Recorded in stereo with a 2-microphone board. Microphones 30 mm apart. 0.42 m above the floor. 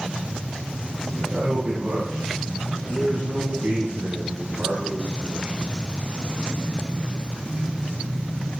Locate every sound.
1.1 s a man speaking: 65° right (ahead or behind), 7 m